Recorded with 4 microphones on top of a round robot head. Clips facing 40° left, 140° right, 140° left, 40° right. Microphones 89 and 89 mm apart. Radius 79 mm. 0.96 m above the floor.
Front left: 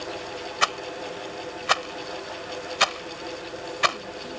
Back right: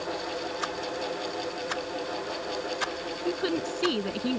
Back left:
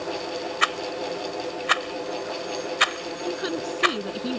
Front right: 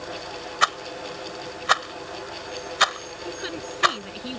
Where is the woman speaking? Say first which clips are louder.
Back right 9 dB, back left 5 dB; 160° right.